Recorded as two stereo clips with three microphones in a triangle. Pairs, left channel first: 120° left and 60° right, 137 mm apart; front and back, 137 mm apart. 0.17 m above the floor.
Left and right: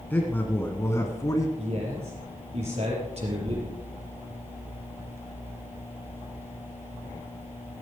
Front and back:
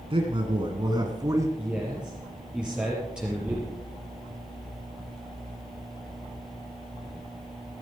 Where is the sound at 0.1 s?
170° right, 1.7 m; by 1.5 s 145° left, 1.4 m.